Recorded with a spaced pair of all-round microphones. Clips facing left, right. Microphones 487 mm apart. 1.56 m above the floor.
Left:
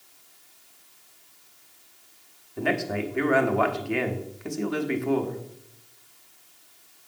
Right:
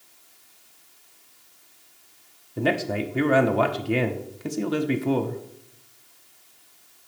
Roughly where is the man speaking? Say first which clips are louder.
Right 2 dB; right.